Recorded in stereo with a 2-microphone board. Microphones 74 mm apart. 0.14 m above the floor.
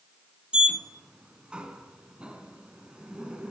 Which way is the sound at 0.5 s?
15° right (ahead or behind).